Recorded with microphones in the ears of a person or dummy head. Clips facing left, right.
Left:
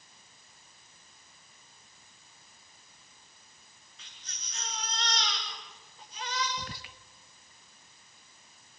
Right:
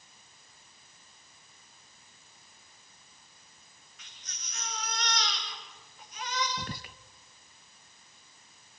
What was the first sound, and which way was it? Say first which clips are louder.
A baby crying: even; 25° left (ahead or behind).